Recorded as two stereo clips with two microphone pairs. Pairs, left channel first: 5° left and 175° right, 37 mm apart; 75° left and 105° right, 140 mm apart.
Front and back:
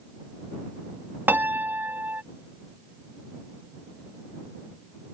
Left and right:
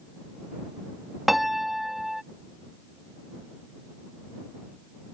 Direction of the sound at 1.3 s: 165° left.